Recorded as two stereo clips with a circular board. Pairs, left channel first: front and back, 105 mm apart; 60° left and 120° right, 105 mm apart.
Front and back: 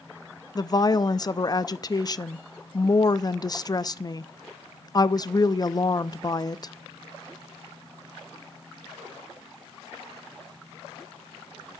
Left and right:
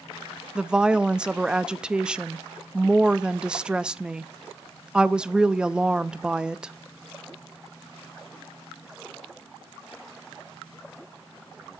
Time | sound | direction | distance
0.6 | a woman speaking | 40° right | 0.5 m